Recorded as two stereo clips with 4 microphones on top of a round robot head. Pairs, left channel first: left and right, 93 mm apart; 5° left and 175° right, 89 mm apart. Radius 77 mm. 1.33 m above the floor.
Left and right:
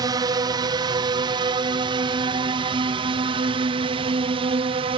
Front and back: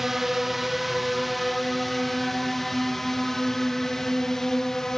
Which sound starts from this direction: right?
A drone, at 0.0 s.